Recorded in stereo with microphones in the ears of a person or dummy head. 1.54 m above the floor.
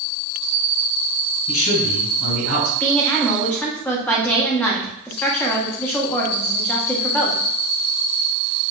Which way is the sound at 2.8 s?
5° left (ahead or behind).